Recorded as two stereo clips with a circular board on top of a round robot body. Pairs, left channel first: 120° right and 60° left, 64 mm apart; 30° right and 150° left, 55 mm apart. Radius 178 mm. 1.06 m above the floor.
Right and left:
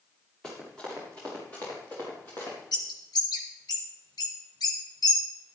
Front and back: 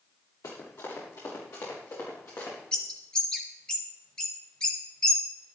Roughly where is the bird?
Right.